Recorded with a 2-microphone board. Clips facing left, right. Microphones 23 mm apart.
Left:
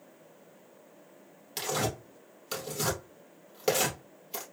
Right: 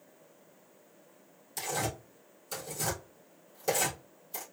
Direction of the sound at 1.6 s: 60° left (ahead or behind).